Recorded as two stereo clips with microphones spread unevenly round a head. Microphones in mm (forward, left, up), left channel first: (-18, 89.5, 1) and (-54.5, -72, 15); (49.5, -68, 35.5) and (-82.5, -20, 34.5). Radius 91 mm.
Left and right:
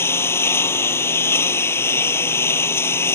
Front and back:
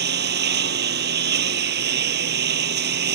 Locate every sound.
0.0 s a lawn mower: 155° left